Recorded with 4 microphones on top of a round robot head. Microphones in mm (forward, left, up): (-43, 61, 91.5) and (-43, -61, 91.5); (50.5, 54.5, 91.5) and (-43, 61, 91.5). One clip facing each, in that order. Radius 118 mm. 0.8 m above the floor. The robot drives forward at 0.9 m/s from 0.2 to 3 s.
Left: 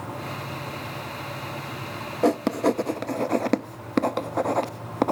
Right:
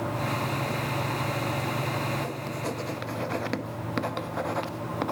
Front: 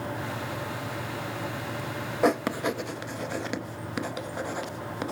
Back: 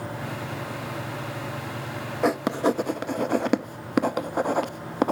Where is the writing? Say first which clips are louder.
Left 11 dB, back 2 dB; 85° left, 0.6 m; by 5.1 s 135° left, 0.9 m.